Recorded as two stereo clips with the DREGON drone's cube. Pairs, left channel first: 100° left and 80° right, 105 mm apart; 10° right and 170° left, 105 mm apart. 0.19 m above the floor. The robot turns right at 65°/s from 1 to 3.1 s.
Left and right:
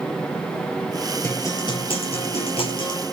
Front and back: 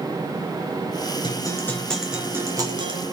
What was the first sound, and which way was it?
A guitar, 30° left.